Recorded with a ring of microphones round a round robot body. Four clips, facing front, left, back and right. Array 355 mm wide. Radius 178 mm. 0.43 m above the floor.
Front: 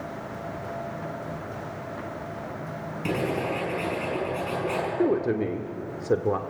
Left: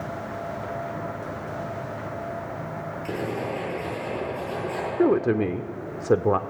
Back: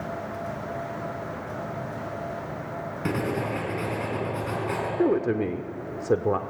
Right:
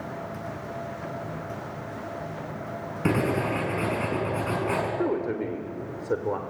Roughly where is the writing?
Right.